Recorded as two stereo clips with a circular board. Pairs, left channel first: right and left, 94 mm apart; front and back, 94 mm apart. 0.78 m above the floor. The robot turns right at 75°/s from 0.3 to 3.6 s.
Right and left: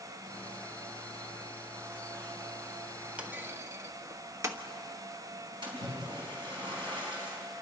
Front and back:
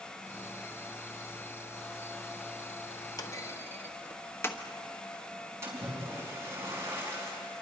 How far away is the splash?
About 5 m.